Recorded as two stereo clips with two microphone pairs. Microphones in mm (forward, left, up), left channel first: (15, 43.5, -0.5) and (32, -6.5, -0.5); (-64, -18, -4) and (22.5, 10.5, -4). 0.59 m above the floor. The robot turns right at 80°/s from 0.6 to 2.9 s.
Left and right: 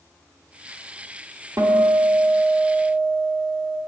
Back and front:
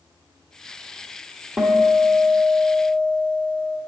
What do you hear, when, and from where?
1.6 s a guitar: 70° right, 1.0 m; by 3.8 s 40° left, 1.0 m